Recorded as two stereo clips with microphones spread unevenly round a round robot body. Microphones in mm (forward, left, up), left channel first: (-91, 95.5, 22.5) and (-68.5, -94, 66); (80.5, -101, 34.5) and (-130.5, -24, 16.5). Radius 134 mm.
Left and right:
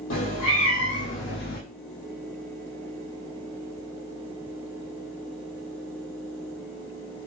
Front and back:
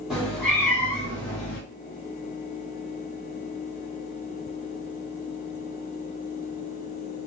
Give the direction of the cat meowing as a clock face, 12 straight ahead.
10 o'clock.